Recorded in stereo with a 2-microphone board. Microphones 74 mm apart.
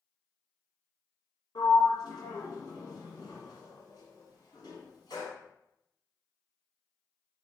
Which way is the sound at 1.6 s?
75° left (ahead or behind).